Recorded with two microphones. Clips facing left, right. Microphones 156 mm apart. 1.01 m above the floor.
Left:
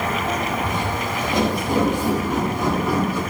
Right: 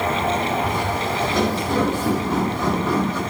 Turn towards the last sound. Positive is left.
turn(degrees=10)  # may be behind; listen again after turning